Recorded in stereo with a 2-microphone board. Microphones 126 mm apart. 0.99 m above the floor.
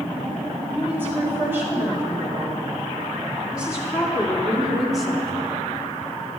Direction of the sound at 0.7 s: 15° right (ahead or behind).